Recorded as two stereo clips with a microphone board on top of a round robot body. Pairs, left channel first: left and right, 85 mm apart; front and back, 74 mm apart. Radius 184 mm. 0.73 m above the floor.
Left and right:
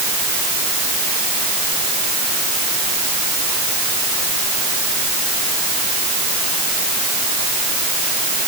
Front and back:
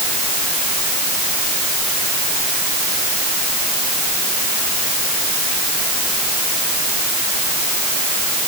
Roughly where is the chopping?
I don't hear chopping.